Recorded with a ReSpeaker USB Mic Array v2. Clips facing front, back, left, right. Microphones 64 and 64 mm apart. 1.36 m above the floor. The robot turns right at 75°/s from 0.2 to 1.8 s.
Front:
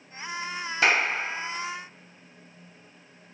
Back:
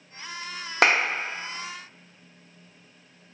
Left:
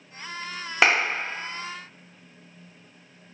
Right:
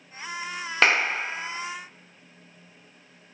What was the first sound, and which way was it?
A clap, 175° left.